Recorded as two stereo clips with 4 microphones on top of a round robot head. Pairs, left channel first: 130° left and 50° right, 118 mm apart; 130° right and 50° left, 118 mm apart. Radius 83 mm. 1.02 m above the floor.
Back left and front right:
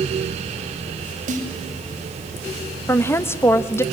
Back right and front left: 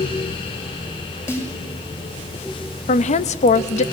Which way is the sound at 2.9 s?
160° right.